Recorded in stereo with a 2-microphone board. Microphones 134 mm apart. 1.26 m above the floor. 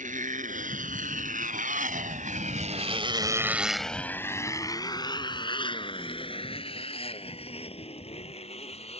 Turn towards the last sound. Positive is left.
turn(degrees=50)  # may be behind; listen again after turning